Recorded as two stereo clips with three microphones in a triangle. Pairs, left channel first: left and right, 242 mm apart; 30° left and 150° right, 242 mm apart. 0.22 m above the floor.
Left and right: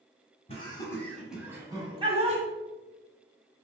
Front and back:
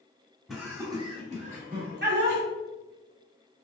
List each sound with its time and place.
0.5 s laughter: 120° left, 1.2 m; by 2.4 s 145° right, 1.7 m